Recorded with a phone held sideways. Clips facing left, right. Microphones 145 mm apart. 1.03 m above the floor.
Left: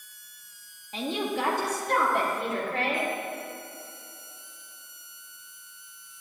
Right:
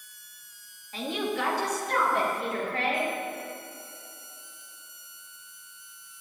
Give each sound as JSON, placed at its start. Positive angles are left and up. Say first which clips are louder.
{"t": 0.9, "sound": "a woman speaking", "louder": "left 1 dB", "side_deg": 20, "distance_m": 1.7}